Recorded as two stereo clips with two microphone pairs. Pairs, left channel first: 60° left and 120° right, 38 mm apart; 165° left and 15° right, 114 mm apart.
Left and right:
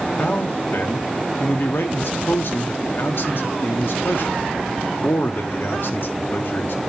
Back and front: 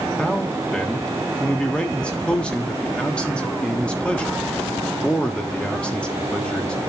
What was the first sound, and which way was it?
A man speaking, 85° left.